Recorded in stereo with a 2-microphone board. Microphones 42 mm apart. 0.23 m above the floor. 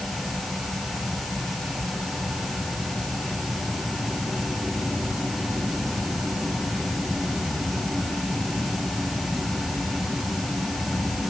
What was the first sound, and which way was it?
Only background noise.